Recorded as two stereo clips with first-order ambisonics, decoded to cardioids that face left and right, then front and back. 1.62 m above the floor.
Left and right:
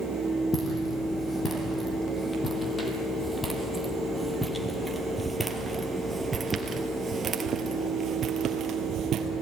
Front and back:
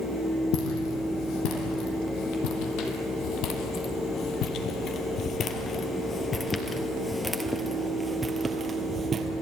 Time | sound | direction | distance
0.5 | footsteps | 20° left | 3.5 m